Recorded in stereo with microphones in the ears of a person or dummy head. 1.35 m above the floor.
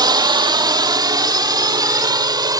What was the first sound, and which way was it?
A drone, 15° right (ahead or behind).